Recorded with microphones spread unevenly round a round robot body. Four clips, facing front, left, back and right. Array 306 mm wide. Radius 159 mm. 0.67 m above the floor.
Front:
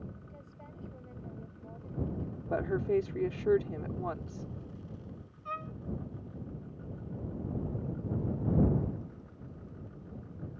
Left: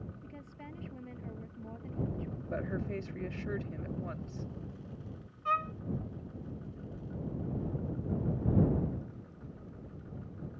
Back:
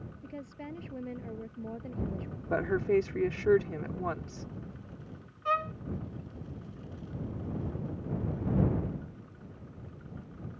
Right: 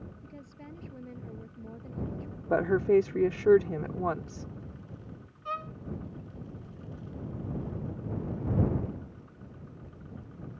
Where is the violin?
165° left.